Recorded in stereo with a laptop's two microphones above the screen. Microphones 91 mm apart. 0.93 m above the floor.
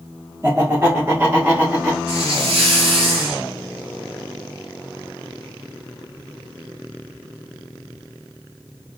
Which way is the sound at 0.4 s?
30° right (ahead or behind).